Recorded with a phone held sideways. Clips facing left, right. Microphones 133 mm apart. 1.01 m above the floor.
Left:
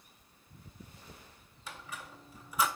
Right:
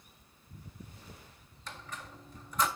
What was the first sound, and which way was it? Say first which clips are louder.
A squeak: even; 5° left (ahead or behind).